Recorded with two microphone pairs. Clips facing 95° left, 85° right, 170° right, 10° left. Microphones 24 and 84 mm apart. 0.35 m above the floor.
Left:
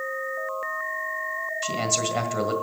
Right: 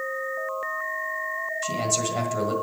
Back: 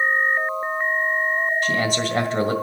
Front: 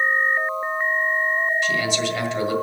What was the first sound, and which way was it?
A man speaking, 160° left.